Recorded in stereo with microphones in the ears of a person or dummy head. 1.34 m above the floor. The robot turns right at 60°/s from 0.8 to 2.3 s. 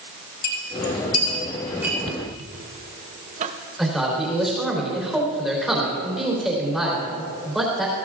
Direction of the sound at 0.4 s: 55° left (ahead or behind).